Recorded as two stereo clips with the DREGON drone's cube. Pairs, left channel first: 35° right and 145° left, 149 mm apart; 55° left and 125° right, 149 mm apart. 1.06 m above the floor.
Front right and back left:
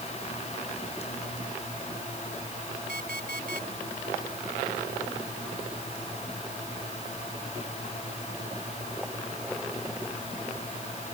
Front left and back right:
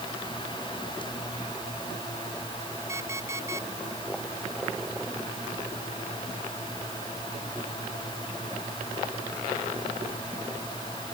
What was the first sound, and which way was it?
An alarm clock, 165° left.